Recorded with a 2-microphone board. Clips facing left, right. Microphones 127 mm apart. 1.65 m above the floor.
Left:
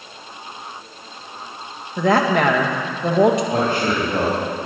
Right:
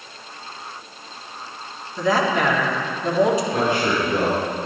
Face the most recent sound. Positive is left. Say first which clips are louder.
# left 1 dB
turn(degrees=60)  # may be behind; listen again after turning